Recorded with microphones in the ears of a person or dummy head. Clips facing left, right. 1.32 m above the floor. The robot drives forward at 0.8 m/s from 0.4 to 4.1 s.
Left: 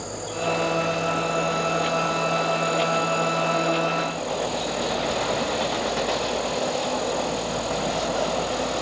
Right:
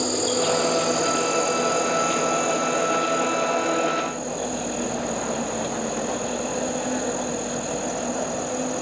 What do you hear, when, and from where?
0.0 s an insect: 55° right (ahead or behind); by 8.8 s 20° right (ahead or behind)